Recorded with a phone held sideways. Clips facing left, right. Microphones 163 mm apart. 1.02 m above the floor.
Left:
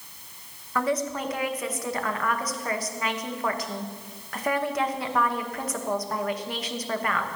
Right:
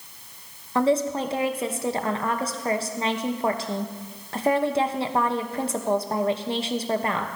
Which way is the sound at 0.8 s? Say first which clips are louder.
Right 5 dB; 30° right (ahead or behind).